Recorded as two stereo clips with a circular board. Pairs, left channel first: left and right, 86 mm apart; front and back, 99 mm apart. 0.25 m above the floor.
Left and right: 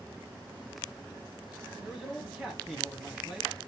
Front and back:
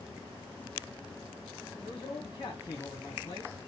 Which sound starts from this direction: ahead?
A man speaking, at 1.8 s.